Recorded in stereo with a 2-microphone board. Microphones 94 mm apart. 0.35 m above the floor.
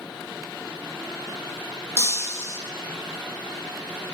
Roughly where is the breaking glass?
Left.